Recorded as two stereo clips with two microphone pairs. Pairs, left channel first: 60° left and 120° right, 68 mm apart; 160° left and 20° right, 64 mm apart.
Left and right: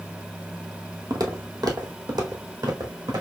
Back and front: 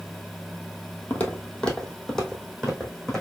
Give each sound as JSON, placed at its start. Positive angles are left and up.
{"t": 1.1, "sound": "footsteps", "azimuth_deg": -140, "distance_m": 1.1}